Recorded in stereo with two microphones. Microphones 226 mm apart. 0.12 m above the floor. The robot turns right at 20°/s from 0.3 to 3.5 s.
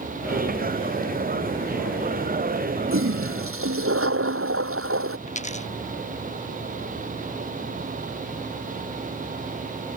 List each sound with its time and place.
2.9 s a toilet flushing: 70° right (ahead or behind); by 5.2 s 75° right (ahead or behind)
5.3 s a dropped coin: 30° left (ahead or behind)